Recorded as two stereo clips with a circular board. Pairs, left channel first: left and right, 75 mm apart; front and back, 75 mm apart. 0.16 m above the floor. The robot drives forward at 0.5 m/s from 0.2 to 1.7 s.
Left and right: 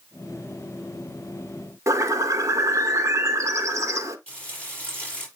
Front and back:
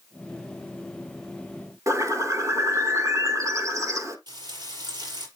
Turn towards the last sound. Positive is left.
turn(degrees=165)